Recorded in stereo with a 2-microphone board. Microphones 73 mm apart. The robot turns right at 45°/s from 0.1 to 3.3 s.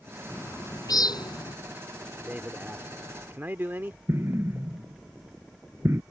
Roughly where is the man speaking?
Centre.